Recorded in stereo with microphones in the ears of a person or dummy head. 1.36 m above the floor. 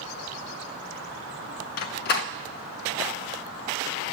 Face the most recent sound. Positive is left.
turn(degrees=50)  # may be behind; listen again after turning